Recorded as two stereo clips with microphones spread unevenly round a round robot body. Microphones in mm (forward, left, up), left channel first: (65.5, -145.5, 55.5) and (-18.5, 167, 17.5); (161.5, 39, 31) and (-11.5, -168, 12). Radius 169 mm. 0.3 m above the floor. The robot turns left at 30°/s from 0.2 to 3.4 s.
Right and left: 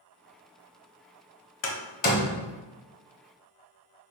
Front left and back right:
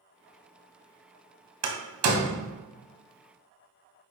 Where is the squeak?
I don't hear a squeak.